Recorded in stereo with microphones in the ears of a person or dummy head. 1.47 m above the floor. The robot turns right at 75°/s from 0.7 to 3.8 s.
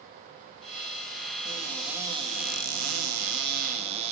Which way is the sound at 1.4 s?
155° left.